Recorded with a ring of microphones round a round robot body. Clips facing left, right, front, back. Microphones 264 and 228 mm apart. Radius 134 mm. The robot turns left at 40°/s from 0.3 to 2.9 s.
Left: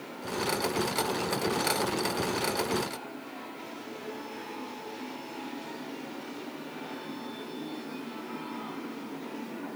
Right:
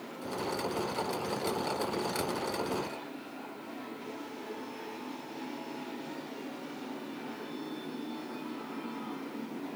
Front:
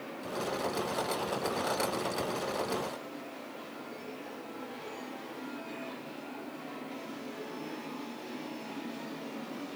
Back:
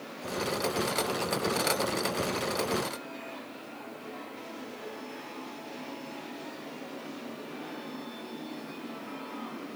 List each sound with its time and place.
Only background noise.